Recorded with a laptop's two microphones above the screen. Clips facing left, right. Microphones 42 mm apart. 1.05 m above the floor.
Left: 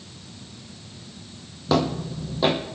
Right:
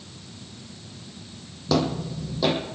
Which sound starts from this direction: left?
Footsteps, at 1.7 s.